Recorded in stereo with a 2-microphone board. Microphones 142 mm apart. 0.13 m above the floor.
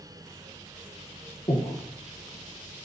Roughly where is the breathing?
Left.